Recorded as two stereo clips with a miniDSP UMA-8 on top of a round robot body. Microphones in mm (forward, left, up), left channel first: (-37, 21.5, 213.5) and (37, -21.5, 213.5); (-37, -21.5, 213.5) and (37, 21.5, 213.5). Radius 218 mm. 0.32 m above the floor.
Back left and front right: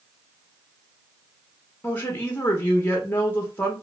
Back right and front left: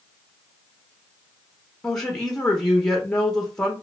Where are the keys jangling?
I don't hear keys jangling.